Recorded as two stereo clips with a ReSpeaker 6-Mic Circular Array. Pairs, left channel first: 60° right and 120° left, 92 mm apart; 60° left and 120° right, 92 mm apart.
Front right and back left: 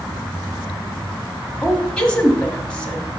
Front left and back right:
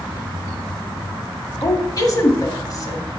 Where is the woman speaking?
20° left, 1.3 m.